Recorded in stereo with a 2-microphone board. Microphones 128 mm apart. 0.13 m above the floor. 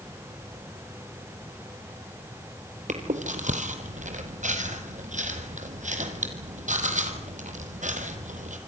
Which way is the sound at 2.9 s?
70° right (ahead or behind).